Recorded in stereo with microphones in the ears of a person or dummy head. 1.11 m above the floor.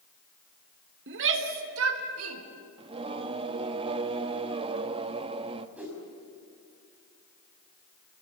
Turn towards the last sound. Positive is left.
turn(degrees=-5)  # may be behind; listen again after turning